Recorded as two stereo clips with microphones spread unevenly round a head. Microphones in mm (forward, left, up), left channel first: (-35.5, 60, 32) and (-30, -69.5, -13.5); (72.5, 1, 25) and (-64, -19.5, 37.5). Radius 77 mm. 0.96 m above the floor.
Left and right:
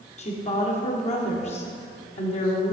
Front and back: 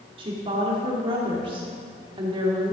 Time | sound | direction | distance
0.2 | a woman speaking | 130° left | 1.9 m